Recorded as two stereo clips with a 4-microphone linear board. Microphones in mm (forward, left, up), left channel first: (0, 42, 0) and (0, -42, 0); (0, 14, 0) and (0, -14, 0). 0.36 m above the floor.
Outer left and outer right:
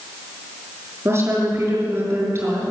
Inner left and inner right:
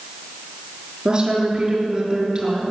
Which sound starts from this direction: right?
A woman speaking, at 1.1 s.